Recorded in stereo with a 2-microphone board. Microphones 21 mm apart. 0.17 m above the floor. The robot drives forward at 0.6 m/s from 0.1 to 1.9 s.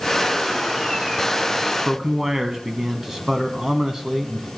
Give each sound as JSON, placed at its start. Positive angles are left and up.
{"t": 1.9, "sound": "a man speaking", "side_deg": -25, "distance_m": 1.1}